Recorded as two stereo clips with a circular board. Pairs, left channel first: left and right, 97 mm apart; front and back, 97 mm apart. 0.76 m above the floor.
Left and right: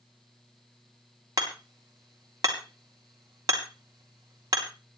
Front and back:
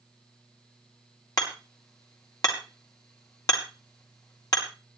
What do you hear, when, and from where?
1.4 s hammering: 45° right, 3 m